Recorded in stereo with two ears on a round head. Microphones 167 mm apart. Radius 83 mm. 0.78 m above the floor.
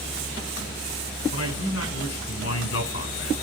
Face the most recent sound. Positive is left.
turn(degrees=80)